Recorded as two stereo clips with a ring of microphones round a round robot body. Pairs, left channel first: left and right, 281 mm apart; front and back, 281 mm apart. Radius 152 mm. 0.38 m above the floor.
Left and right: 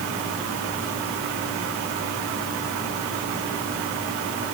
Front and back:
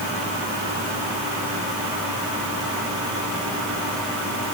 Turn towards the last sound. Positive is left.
No sound to turn to.